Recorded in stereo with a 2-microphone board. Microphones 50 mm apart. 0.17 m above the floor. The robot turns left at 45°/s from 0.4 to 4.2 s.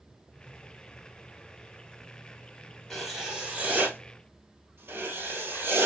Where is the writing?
5° left, 1.7 m; by 5.9 s 55° right, 1.7 m.